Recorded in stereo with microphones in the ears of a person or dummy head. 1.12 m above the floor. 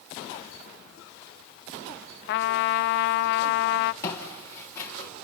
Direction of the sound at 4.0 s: 20° left (ahead or behind).